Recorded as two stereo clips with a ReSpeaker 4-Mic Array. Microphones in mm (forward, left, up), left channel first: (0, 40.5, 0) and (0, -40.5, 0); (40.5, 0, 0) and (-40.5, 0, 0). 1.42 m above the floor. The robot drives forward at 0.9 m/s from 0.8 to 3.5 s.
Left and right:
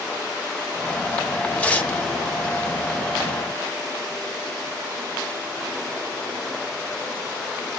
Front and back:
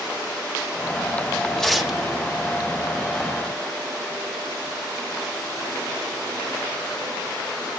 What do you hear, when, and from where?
1.6 s tearing paper: 65° left, 1.2 m; by 2.0 s 120° left, 1.2 m